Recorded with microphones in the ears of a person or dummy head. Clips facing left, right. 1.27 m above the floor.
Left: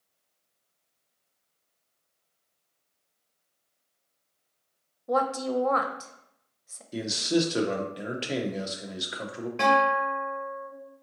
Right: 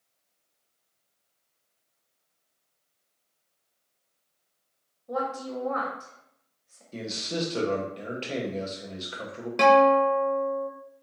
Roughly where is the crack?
No crack in this recording.